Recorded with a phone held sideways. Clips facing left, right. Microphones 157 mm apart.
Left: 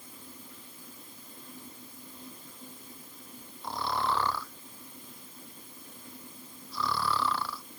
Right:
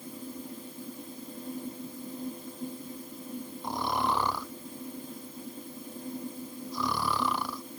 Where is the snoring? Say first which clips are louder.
Right 1 dB; 15° right (ahead or behind).